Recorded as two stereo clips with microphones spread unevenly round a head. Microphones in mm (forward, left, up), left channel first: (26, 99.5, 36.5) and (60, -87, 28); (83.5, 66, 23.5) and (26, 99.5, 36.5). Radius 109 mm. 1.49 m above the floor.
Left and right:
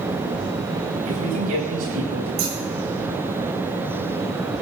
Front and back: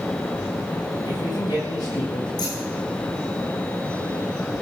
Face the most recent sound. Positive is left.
turn(degrees=-70)